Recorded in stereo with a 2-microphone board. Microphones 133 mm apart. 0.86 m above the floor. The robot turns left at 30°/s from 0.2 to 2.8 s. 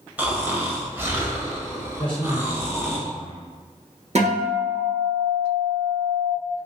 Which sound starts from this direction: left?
A man speaking, at 2.0 s.